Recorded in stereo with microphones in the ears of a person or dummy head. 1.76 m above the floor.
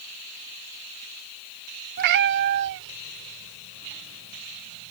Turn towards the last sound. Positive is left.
turn(degrees=-75)  # may be behind; listen again after turning